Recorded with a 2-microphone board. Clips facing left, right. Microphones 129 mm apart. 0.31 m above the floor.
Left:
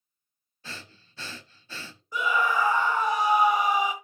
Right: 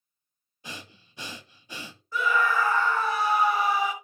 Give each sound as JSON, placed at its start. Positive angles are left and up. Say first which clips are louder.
{"t": 0.6, "sound": "breathing", "louder": "right 1 dB", "side_deg": -15, "distance_m": 0.6}
{"t": 2.1, "sound": "a scream", "louder": "right 1 dB", "side_deg": 15, "distance_m": 1.2}